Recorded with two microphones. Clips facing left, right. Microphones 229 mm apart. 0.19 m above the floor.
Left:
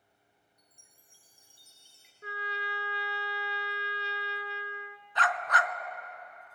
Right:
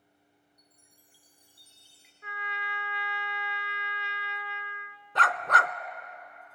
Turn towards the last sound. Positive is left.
turn(degrees=-60)  # may be behind; listen again after turning